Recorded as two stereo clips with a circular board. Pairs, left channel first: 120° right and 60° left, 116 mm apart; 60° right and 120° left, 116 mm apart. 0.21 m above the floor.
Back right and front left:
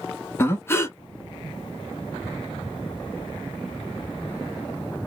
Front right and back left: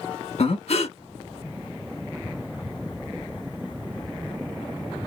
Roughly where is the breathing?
Ahead right.